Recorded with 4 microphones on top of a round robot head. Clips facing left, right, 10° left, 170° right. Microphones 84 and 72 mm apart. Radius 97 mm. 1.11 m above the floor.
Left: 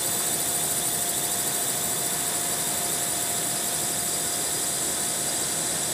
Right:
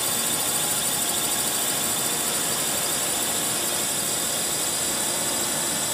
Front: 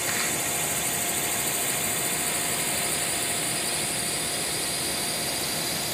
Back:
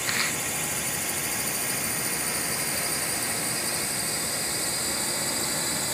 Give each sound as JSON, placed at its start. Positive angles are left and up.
{"t": 0.0, "sound": "a drone", "azimuth_deg": -85}